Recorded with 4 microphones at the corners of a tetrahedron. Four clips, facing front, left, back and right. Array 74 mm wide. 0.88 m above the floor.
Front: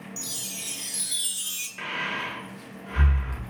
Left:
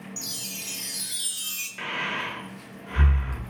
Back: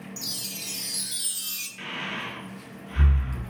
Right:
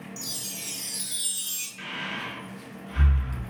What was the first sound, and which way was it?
A chime, 120° left.